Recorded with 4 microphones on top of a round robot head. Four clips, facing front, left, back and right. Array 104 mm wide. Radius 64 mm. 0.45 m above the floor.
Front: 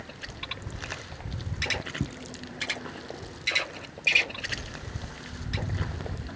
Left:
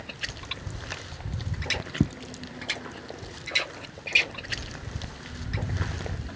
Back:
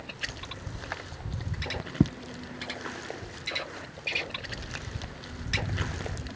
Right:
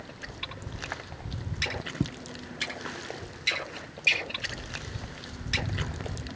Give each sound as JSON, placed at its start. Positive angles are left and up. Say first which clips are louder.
{"t": 2.0, "sound": "footsteps", "louder": "left 6 dB, back 9 dB", "azimuth_deg": 160, "distance_m": 0.6}